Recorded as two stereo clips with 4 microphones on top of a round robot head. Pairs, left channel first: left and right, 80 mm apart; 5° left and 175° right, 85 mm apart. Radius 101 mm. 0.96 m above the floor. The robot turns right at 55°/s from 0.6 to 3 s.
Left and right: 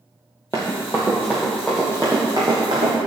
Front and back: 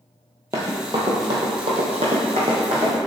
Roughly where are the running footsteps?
Behind.